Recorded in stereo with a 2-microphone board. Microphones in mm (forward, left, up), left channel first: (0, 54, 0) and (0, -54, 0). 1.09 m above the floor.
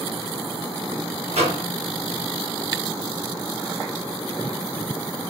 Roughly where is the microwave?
Right.